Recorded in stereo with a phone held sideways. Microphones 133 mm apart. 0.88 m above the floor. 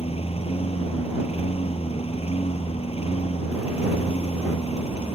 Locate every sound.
0.0 s a lawn mower: 50° left (ahead or behind)